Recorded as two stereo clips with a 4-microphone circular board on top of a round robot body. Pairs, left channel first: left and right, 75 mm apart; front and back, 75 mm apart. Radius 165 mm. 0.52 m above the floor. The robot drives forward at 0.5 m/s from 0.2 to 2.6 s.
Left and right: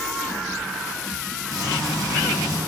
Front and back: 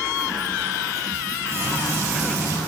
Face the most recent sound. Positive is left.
turn(degrees=-130)